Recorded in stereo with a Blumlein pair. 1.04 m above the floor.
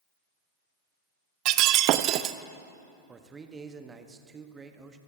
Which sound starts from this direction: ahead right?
Breaking glass, at 1.4 s.